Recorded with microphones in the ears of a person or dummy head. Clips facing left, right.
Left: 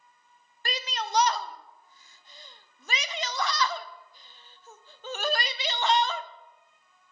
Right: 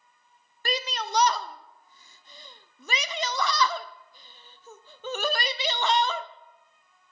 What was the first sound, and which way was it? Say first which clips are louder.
A shout: right 3 dB; 85° right.